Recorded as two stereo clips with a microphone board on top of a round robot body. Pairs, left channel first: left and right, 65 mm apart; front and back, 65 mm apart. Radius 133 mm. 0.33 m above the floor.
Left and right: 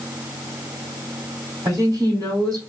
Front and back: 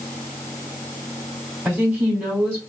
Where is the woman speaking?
115° right, 3 m.